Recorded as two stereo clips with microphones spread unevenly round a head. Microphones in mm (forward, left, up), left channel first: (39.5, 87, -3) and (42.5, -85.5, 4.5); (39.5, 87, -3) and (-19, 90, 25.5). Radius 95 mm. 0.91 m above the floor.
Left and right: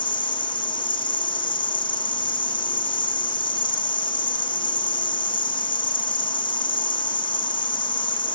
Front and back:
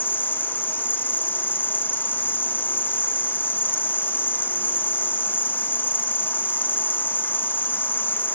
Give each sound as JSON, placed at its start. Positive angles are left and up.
{"t": 0.0, "sound": "an insect", "azimuth_deg": 30, "distance_m": 0.7}